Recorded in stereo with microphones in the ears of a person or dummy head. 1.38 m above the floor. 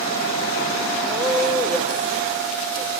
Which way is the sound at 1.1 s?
10° left (ahead or behind).